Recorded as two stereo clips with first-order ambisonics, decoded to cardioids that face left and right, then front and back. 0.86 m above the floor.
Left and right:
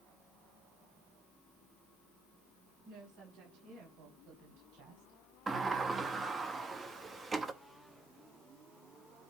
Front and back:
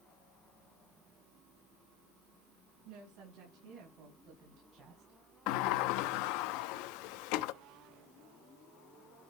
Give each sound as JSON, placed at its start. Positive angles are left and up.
{"t": 2.9, "sound": "a woman speaking", "azimuth_deg": -135, "distance_m": 6.0}
{"t": 5.5, "sound": "a sliding door", "azimuth_deg": -15, "distance_m": 0.7}